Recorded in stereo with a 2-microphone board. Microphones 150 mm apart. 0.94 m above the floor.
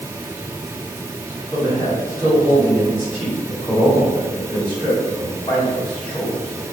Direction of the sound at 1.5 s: 25° left (ahead or behind).